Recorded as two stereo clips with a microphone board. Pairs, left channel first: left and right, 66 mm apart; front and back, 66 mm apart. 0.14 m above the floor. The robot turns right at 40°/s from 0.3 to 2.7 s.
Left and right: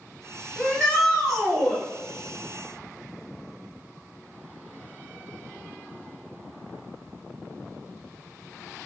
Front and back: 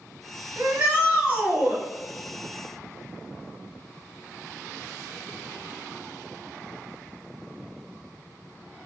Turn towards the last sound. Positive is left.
turn(degrees=-135)